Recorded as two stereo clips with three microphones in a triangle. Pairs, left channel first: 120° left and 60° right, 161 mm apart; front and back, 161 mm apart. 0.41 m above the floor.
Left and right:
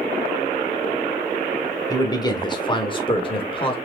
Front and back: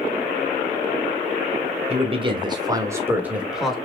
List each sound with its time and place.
1.9 s a man speaking: 175° left, 1.5 m; by 3.7 s 90° left, 1.5 m